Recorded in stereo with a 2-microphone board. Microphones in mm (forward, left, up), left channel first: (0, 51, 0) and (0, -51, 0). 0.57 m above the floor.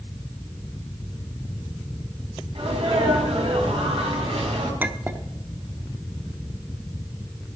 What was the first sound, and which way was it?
A sneeze, 70° right (ahead or behind).